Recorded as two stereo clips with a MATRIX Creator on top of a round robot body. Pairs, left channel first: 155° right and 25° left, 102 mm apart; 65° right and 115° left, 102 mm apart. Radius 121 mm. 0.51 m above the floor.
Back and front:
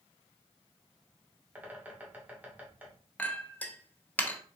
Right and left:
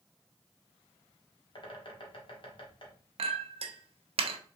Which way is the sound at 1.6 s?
50° right.